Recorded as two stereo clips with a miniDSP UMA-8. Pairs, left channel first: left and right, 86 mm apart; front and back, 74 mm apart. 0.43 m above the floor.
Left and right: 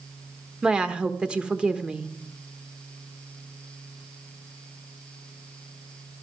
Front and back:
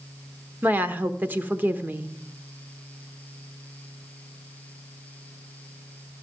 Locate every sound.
0.6 s a woman speaking: 155° right, 0.9 m